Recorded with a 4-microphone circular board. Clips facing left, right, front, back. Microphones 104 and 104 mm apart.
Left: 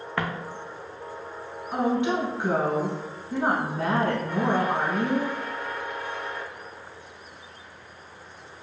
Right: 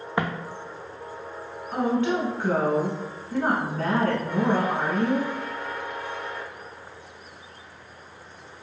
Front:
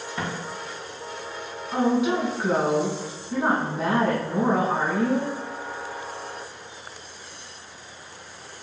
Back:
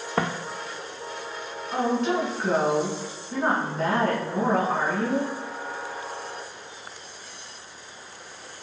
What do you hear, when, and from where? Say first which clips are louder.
0.2 s footsteps: right 3 dB, back 6 dB; 165° right, 0.5 m
1.7 s a woman speaking: even, front 2 dB; 65° left, 1.1 m